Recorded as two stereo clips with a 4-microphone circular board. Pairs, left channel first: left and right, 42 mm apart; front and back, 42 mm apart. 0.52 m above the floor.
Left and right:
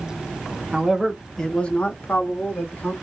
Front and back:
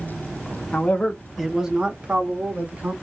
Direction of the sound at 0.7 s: 25° right.